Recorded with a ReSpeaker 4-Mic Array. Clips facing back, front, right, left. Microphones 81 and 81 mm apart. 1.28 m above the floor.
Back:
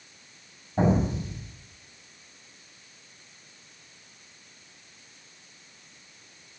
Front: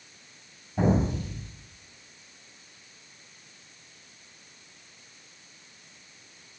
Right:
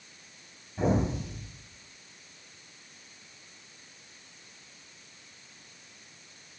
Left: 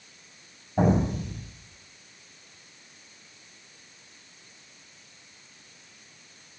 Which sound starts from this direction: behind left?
An explosion, at 0.8 s.